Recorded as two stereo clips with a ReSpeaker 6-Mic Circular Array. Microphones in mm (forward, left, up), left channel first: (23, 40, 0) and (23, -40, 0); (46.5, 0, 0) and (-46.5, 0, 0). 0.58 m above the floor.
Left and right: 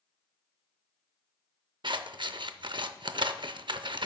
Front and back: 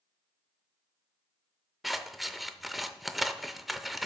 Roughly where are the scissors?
Right.